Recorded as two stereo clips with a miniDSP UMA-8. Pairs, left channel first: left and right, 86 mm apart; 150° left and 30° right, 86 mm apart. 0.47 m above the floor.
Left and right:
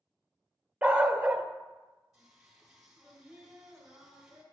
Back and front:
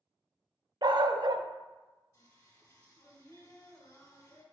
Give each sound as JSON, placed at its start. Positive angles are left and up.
{"t": 0.8, "sound": "a dog barking", "azimuth_deg": -20, "distance_m": 0.6}
{"t": 2.1, "sound": "singing", "azimuth_deg": -175, "distance_m": 2.0}